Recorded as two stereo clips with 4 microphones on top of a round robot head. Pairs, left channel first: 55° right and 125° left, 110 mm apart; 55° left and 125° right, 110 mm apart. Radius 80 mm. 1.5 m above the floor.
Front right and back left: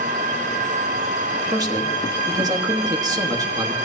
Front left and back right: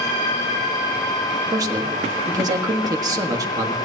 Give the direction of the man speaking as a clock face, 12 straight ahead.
6 o'clock.